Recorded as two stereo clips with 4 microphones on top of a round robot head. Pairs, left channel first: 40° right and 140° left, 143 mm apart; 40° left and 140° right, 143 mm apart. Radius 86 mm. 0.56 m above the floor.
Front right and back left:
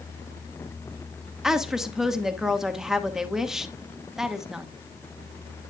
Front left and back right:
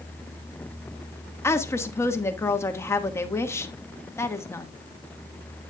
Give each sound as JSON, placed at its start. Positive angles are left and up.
{"t": 1.4, "sound": "a woman speaking", "azimuth_deg": 60, "distance_m": 1.1}